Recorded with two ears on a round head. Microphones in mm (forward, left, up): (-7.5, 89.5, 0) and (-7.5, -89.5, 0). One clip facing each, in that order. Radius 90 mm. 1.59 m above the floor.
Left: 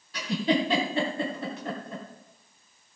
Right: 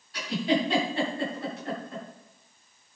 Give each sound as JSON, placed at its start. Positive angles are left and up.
{"t": 0.1, "sound": "a giggle", "side_deg": 65, "distance_m": 3.0}